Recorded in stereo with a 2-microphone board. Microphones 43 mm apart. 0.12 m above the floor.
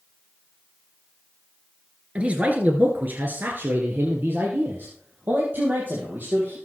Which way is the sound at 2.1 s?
30° right (ahead or behind).